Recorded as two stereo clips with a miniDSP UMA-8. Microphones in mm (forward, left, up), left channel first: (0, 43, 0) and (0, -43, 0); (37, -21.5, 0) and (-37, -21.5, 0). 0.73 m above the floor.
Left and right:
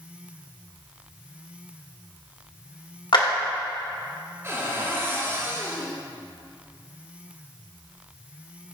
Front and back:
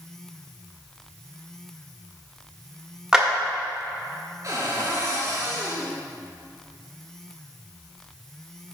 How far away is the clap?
About 1.5 m.